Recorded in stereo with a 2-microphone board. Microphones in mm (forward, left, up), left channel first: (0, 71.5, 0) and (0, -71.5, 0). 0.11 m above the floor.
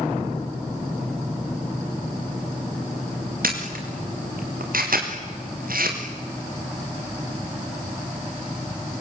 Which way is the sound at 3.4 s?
85° right.